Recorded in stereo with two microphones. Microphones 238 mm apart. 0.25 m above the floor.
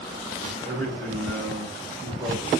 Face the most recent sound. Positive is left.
turn(degrees=10)  # may be behind; listen again after turning